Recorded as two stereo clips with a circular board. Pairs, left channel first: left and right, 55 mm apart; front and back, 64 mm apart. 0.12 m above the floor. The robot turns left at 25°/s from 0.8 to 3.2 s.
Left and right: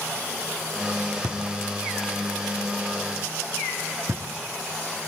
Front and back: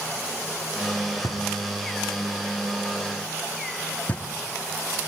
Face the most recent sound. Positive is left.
turn(degrees=-65)